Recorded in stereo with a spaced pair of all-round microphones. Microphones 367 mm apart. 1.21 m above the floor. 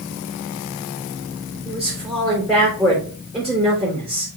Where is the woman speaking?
Centre (ahead or behind), 3 m.